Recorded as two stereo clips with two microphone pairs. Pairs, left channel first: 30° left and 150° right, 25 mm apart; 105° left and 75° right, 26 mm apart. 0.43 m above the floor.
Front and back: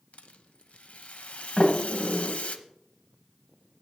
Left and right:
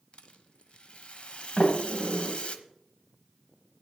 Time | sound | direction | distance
0.1 | a rattle | 60° left | 0.7 m
1.6 | a sliding door | 75° left | 2 m